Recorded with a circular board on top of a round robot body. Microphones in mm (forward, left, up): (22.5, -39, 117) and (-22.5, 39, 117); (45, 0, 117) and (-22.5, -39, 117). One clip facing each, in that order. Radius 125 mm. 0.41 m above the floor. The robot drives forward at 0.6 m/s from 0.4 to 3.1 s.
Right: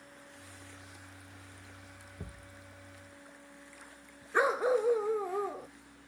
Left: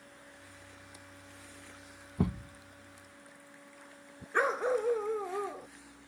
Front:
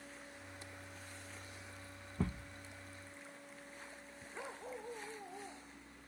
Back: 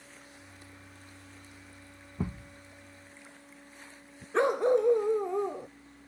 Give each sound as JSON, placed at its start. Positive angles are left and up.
{"t": 2.2, "sound": "a thud", "azimuth_deg": 125}
{"t": 4.3, "sound": "a dog barking", "azimuth_deg": -145}